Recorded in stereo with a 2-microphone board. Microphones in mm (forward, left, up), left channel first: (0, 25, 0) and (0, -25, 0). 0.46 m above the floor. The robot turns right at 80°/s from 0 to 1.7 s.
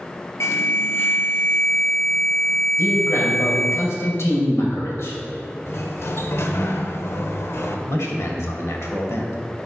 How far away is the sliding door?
About 1.0 m.